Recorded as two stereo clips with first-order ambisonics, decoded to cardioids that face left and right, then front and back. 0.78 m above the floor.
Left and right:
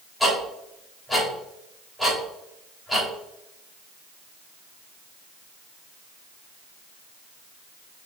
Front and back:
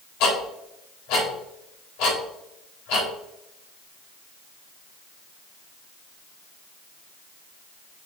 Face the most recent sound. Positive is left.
turn(degrees=-5)